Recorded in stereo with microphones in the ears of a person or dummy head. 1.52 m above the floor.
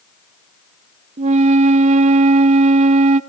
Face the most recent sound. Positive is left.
turn(degrees=-35)  # may be behind; listen again after turning